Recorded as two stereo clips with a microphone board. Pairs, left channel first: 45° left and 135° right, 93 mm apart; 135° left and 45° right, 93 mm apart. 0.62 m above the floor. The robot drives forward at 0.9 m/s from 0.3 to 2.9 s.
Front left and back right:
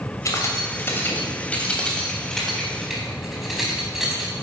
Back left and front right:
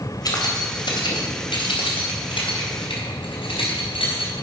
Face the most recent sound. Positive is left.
turn(degrees=135)